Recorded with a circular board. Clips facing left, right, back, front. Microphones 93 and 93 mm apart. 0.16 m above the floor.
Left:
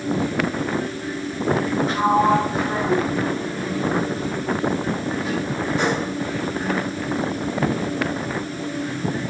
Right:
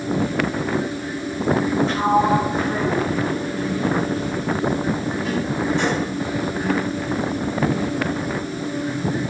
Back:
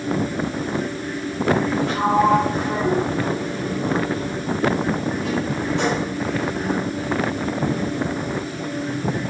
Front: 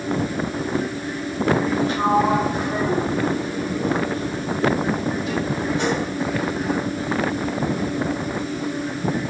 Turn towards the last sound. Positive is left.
turn(degrees=175)